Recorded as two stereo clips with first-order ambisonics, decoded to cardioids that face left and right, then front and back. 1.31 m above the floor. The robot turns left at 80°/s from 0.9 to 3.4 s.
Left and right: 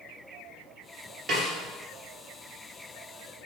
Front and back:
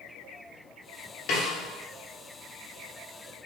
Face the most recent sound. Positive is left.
turn(degrees=160)